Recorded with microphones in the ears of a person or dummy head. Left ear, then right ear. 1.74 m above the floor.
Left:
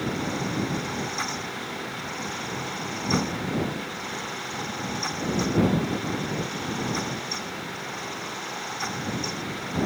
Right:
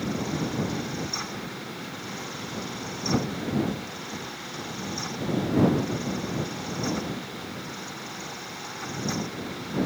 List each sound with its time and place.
Only background noise.